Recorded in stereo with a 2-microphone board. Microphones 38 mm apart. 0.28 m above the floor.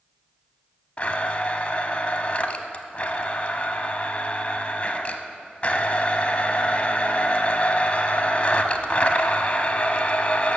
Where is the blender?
35° left (ahead or behind), 0.7 m.